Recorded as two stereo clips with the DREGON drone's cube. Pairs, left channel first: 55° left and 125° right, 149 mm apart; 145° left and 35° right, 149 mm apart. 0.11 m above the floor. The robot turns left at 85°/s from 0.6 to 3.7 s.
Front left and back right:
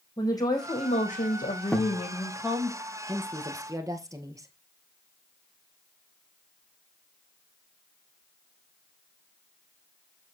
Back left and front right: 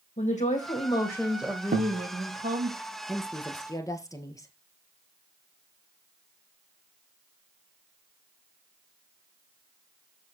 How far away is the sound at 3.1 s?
About 1.5 m.